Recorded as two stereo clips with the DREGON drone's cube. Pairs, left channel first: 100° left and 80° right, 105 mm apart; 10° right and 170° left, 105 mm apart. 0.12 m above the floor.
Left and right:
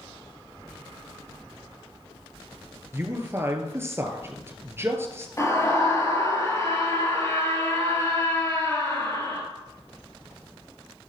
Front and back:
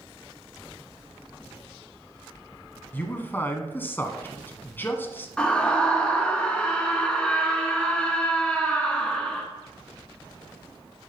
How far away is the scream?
About 2 m.